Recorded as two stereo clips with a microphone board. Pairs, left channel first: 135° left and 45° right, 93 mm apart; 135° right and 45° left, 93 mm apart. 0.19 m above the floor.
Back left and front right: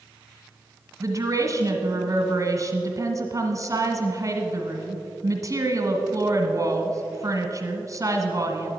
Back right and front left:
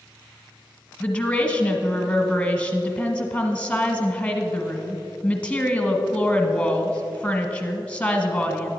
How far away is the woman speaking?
About 1.3 m.